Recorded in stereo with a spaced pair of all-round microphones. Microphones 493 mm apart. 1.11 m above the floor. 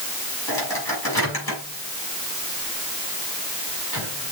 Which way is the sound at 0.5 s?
45° left (ahead or behind).